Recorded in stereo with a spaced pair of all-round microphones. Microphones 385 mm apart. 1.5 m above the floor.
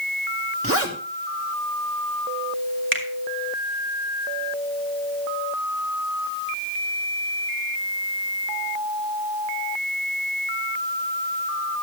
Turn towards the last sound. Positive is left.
turn(degrees=-30)  # may be behind; listen again after turning